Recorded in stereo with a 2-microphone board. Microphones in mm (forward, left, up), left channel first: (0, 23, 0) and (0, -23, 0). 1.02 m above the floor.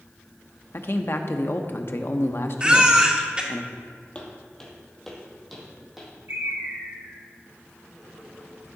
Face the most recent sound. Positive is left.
turn(degrees=-65)  # may be behind; listen again after turning